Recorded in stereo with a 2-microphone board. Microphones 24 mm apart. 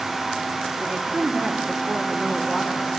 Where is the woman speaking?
70° right (ahead or behind), 2 m; by 2.9 s 55° right (ahead or behind), 3 m.